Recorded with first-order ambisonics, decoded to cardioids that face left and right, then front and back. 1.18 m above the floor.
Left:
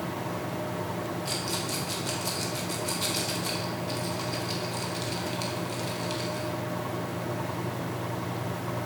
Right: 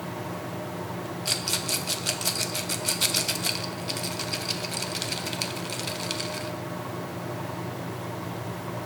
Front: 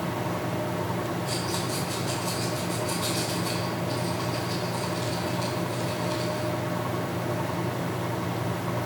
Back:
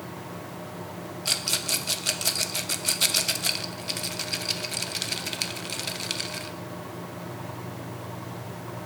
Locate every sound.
1.2 s a rattle: 150° right, 0.8 m